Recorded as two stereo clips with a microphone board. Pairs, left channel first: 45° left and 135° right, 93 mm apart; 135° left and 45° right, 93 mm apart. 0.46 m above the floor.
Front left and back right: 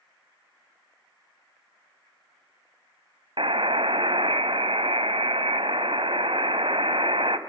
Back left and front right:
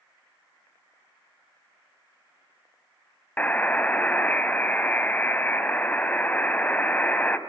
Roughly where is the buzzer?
Behind right.